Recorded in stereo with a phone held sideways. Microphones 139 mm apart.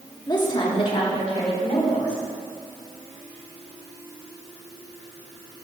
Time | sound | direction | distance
0.3 | a woman speaking | 30° left (ahead or behind) | 1.4 m